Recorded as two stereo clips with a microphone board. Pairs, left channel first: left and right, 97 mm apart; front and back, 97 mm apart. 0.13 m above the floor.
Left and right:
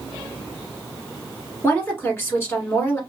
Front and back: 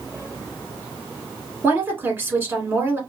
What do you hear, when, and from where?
1.6 s a woman speaking: 130° left, 1.3 m